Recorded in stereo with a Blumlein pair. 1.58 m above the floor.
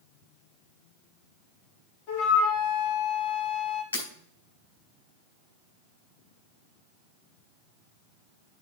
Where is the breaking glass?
70° left, 3.5 m.